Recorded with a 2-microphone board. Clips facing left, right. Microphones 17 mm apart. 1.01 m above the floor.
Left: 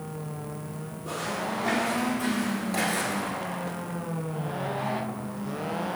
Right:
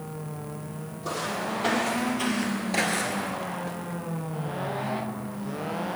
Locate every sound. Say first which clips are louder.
1.0 s footsteps: right 1 dB; 70° right (ahead or behind), 3 m; by 3.3 s centre (ahead or behind), 1.0 m